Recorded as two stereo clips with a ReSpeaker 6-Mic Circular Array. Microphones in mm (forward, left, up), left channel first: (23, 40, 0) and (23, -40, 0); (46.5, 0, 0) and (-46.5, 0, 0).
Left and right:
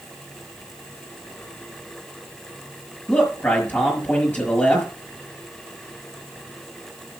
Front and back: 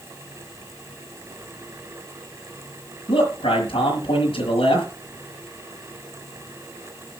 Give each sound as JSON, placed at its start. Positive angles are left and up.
{"t": 3.1, "sound": "a man speaking", "azimuth_deg": 20, "distance_m": 6.0}